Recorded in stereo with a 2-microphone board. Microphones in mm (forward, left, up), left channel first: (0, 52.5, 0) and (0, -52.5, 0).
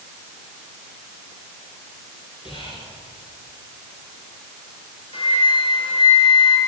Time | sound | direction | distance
2.5 | whispering | 50° left (ahead or behind) | 1.9 m
5.1 | a flute | 60° left (ahead or behind) | 2.5 m